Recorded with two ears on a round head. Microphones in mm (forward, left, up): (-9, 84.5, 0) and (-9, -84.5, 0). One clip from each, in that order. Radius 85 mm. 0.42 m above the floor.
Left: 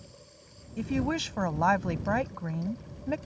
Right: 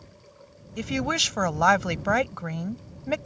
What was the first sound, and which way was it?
A woman speaking, 65° right (ahead or behind).